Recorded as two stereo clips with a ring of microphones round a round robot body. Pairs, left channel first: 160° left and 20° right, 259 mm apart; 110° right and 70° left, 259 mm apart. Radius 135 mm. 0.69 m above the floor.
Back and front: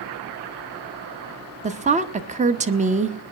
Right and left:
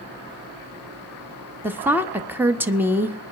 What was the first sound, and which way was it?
A woman speaking, 5° right.